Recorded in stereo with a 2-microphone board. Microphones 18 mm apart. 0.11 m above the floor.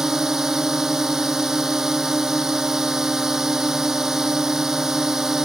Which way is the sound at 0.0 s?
25° right (ahead or behind).